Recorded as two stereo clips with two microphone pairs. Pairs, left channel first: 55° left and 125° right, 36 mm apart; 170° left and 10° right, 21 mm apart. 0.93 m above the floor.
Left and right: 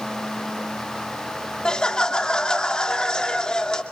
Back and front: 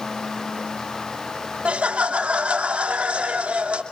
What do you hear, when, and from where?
1.6 s laughter: 10° right, 2.5 m